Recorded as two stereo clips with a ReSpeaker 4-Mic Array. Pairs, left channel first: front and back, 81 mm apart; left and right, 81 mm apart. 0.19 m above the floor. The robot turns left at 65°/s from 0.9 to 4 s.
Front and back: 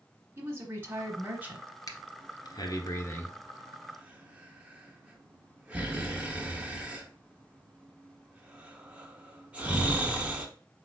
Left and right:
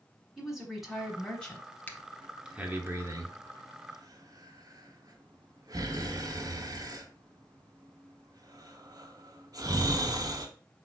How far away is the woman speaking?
About 1.1 m.